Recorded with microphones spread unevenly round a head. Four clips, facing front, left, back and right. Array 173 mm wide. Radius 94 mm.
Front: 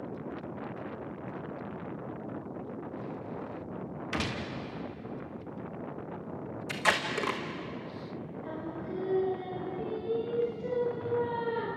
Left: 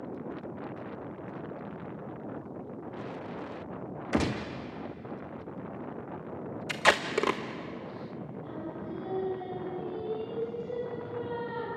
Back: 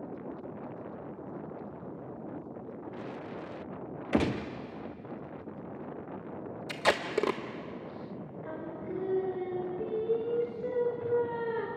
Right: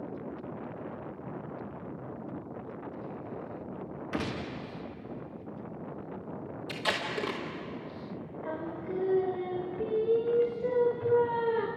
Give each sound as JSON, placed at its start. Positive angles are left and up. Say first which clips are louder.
{"t": 4.1, "sound": "a gunshot", "louder": "left 5 dB, back 7 dB", "azimuth_deg": 160, "distance_m": 0.8}
{"t": 6.7, "sound": "tape being pulled", "louder": "left 7 dB, back 2 dB", "azimuth_deg": 135, "distance_m": 0.8}
{"t": 8.4, "sound": "singing", "louder": "right 4 dB, even", "azimuth_deg": -100, "distance_m": 2.0}